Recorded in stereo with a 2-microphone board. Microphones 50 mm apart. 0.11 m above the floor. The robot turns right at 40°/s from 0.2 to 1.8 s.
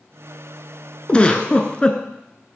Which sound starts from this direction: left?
A giggle, at 1.1 s.